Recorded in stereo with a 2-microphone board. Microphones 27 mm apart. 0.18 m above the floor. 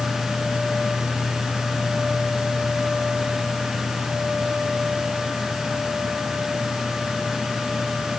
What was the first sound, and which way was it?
Only background noise.